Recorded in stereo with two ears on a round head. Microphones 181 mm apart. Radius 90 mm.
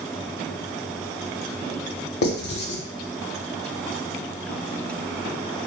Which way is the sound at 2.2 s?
50° left (ahead or behind).